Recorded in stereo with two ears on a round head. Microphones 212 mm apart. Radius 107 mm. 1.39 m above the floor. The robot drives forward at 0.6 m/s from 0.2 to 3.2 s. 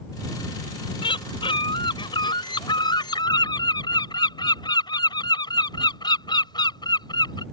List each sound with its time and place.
1.0 s a bird: 25° left (ahead or behind); by 7.4 s 20° left (ahead or behind)